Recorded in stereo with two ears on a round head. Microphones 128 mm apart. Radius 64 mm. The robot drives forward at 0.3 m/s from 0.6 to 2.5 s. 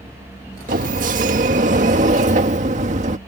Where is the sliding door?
60° right (ahead or behind); by 3.2 s 55° right (ahead or behind).